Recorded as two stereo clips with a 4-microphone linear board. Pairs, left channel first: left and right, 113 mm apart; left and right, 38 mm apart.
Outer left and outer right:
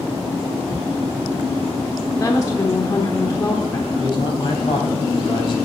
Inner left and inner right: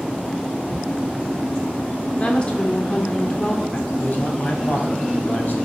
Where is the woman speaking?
30° left (ahead or behind), 1.0 m.